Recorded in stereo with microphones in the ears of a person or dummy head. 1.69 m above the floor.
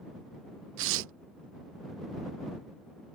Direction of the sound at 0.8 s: 75° right (ahead or behind).